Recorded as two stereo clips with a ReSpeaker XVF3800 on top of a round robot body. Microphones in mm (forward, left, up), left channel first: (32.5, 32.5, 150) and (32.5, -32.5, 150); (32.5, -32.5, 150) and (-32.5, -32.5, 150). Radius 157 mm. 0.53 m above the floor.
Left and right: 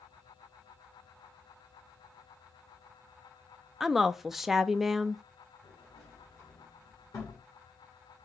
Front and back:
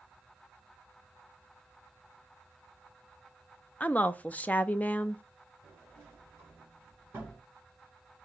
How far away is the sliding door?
About 2 m.